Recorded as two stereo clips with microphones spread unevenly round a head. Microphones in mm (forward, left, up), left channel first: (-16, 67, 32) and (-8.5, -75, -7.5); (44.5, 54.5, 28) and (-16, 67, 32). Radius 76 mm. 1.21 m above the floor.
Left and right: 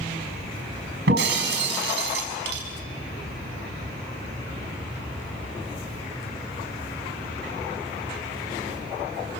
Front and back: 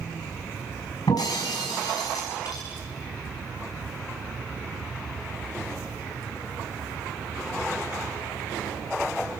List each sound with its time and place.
1.1 s breaking glass: 65° right, 5.5 m